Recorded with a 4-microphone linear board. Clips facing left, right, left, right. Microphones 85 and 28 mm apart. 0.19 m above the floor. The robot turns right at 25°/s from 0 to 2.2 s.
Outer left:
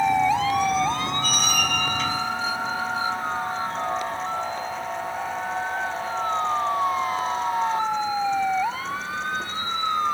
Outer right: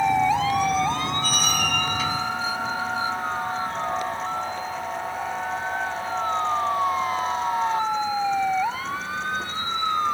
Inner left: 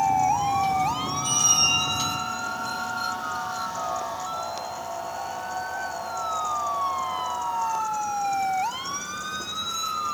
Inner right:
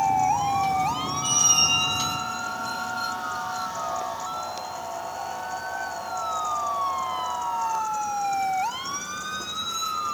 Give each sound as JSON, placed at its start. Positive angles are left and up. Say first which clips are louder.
{"t": 1.2, "sound": "a squeak", "louder": "even, inner right 1 dB", "side_deg": -35, "distance_m": 4.5}